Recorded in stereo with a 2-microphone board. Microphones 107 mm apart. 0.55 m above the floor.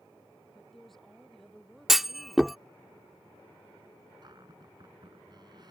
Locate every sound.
0.5 s a woman speaking: centre (ahead or behind)
1.9 s a clunk: centre (ahead or behind)
4.2 s a cupboard door: 45° right (ahead or behind)